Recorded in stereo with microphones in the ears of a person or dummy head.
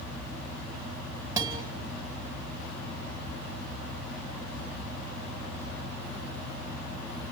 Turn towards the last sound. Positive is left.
turn(degrees=-20)  # may be behind; listen again after turning